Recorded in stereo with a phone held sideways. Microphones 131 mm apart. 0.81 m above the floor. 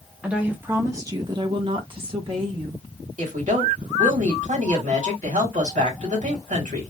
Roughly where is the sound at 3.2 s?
Right.